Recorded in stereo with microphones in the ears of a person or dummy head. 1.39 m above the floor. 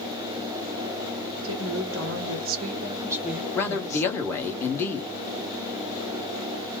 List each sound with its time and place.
1.4 s a woman speaking: 70° right (ahead or behind), 1.2 m; by 4.3 s 35° left (ahead or behind), 1.1 m
3.5 s a man speaking: 25° left (ahead or behind), 1.1 m